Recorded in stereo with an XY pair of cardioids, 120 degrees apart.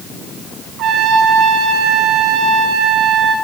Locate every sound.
0.8 s a trumpet: 70° right, 1.1 m